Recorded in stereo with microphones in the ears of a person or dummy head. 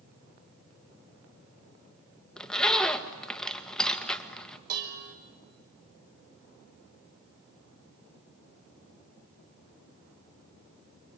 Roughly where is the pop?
No pop in this recording.